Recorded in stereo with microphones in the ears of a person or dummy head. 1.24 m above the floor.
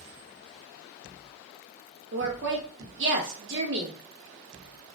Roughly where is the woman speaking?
Right.